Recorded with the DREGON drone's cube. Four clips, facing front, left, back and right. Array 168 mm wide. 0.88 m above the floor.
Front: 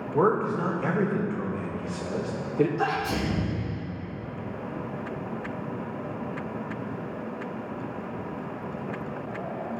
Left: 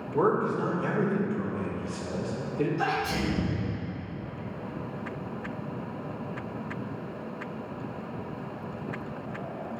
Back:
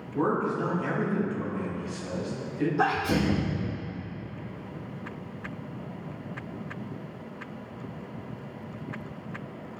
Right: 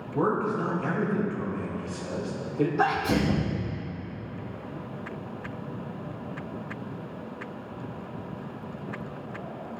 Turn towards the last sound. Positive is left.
turn(degrees=-120)